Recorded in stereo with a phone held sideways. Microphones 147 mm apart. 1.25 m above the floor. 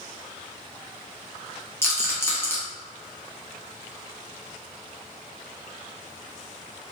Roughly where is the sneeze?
No sneeze in this recording.